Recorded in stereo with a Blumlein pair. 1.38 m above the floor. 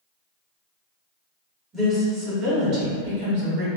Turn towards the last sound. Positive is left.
turn(degrees=-55)